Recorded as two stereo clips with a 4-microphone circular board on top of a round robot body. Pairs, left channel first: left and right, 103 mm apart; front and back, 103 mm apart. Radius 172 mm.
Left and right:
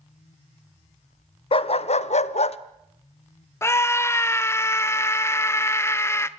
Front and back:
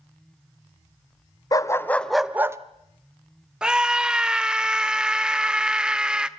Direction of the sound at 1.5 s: 55° left.